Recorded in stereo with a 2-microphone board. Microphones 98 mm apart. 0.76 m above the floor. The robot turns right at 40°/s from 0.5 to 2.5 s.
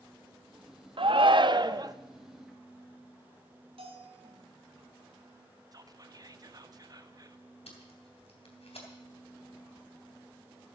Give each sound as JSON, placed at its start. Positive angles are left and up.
{"t": 1.0, "sound": "a shout", "azimuth_deg": -85, "distance_m": 0.7}
{"t": 3.8, "sound": "a bell", "side_deg": -70, "distance_m": 3.0}
{"t": 5.7, "sound": "whispering", "side_deg": -40, "distance_m": 0.9}
{"t": 7.7, "sound": "tape being pulled", "side_deg": 90, "distance_m": 3.0}